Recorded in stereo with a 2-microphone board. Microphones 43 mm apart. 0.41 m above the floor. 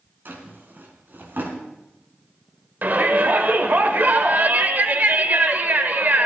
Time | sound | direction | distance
0.2 | a drawer | 50° right (ahead or behind) | 2.5 m
2.8 | a shout | 45° right (ahead or behind) | 1.3 m